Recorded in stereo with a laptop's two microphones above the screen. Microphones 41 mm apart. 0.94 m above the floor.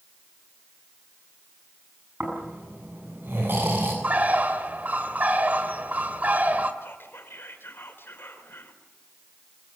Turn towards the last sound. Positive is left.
turn(degrees=80)